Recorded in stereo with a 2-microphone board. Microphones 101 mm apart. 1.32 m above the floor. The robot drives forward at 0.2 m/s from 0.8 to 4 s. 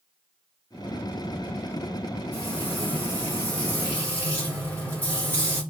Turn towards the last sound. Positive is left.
turn(degrees=20)  # may be behind; listen again after turning